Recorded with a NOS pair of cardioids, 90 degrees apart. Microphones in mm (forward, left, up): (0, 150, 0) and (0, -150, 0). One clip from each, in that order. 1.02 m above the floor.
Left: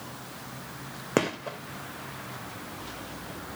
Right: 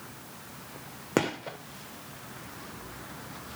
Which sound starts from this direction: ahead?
A gunshot, at 1.2 s.